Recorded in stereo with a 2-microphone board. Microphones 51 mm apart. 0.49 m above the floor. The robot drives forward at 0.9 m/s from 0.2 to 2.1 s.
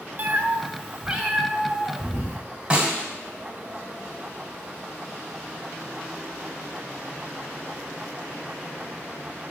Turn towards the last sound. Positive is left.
turn(degrees=-20)  # may be behind; listen again after turning